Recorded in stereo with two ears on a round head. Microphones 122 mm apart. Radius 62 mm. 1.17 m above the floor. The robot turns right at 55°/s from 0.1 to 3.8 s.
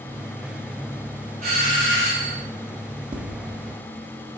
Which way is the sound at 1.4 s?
55° right.